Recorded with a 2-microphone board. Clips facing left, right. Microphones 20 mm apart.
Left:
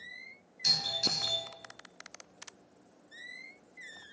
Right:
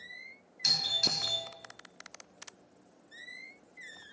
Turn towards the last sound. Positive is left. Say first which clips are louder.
# right 1 dB
turn(degrees=-25)  # may be behind; listen again after turning